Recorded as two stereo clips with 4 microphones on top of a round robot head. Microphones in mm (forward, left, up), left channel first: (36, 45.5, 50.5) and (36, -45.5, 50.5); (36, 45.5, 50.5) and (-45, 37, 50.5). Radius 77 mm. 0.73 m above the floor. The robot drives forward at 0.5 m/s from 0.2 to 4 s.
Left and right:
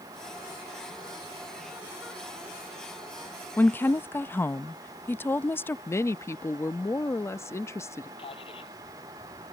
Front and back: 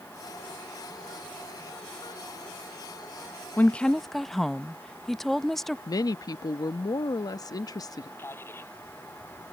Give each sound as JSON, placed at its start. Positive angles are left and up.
{"t": 3.6, "sound": "a woman speaking", "azimuth_deg": 45}
{"t": 5.9, "sound": "a woman speaking", "azimuth_deg": 35}
{"t": 8.2, "sound": "a man speaking", "azimuth_deg": 65}